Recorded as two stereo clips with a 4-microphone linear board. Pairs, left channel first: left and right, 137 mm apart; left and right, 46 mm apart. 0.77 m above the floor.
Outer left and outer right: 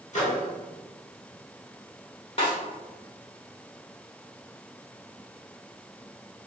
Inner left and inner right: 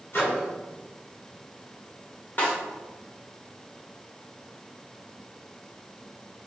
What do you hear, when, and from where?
0.1 s a microwave: 55° left (ahead or behind), 1.6 m
2.4 s a snare drum: 45° left (ahead or behind), 2.0 m